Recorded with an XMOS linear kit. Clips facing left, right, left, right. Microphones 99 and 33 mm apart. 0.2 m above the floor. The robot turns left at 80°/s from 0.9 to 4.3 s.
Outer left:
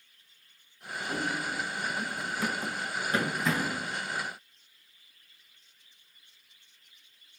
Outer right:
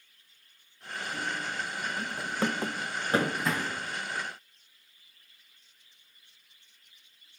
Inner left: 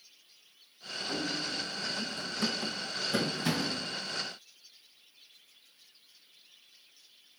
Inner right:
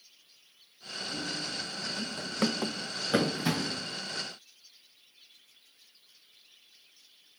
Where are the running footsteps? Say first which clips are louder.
Outer left 3 dB, inner left 2 dB; 65° left (ahead or behind), 1.5 m; by 3.9 s 40° left (ahead or behind), 1.2 m.